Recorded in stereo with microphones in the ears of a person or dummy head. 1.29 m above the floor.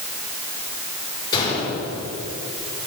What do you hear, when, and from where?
1.3 s a gunshot: 25° left (ahead or behind), 5 m